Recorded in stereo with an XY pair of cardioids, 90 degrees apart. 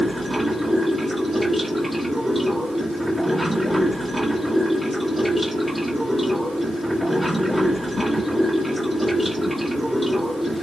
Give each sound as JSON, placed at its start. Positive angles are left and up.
{"t": 0.0, "sound": "running water", "azimuth_deg": 0, "distance_m": 1.8}